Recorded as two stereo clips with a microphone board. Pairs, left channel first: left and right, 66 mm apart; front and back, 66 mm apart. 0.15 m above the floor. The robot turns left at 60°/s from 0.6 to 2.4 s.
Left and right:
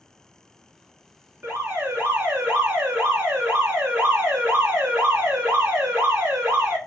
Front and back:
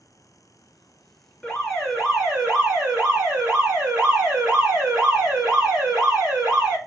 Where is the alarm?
60° right, 1.0 m; by 6.8 s 120° right, 1.0 m.